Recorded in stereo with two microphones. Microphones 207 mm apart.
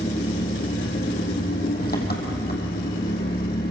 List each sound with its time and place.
0.0 s an engine running: 50° left (ahead or behind), 3 m